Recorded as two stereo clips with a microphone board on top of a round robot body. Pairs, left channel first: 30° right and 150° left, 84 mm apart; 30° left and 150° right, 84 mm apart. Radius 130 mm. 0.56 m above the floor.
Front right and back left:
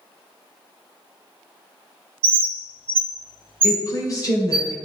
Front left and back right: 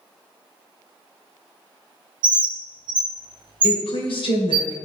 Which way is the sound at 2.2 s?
170° left.